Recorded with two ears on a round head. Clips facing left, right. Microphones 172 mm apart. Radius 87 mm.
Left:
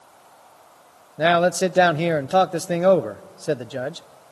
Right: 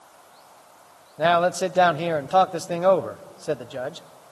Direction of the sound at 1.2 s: 20° left (ahead or behind).